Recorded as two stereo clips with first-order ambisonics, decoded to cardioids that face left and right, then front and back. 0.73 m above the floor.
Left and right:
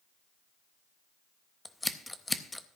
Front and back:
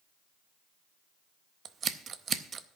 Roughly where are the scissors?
Behind.